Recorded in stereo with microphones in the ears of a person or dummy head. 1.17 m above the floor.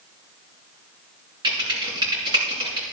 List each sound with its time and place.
1.4 s typing on a keyboard: 20° right (ahead or behind), 4 m